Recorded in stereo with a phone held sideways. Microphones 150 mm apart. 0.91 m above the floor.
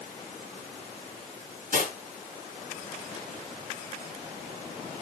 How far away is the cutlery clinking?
About 7 m.